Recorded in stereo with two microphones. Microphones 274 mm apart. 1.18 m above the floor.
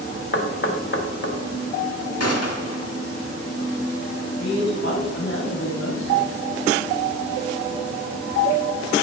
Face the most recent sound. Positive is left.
turn(degrees=60)  # may be behind; listen again after turning